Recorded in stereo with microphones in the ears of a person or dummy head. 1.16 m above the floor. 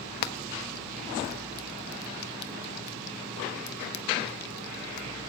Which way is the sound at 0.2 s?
60° left (ahead or behind).